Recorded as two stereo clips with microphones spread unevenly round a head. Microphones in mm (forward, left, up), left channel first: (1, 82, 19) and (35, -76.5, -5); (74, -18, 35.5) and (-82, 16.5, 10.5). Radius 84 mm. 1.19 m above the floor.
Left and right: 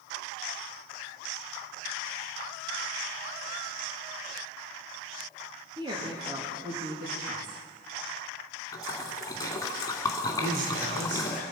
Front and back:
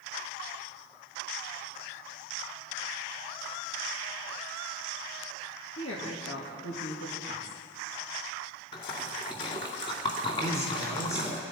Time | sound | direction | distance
5.8 | a woman speaking | 20° right | 2.5 m
8.7 | a splash | 40° left | 2 m
10.4 | a man speaking | 85° right | 3.5 m